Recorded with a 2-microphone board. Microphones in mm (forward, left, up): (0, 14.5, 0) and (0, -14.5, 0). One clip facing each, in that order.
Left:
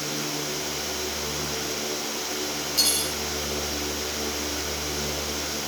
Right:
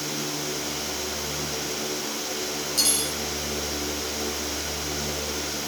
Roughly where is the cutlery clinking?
Centre.